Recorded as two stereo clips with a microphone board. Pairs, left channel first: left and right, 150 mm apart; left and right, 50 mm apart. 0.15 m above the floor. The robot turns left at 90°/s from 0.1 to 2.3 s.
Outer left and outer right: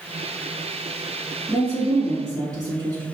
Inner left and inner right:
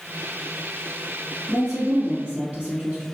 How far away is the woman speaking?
About 1.8 m.